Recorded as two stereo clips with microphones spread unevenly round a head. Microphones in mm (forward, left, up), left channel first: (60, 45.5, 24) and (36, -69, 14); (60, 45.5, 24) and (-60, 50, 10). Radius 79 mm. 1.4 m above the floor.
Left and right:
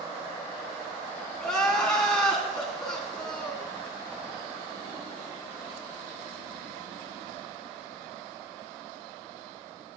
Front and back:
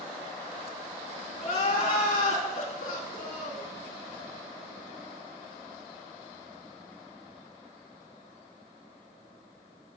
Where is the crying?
5° right, 3.5 m.